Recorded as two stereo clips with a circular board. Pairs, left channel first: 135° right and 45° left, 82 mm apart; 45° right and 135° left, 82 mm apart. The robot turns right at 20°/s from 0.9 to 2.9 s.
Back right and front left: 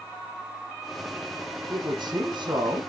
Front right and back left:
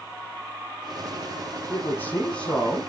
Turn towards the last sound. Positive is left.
turn(degrees=35)